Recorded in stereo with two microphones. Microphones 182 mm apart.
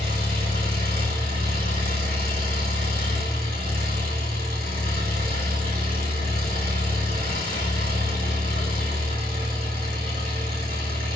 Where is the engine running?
55° right (ahead or behind), 4 m.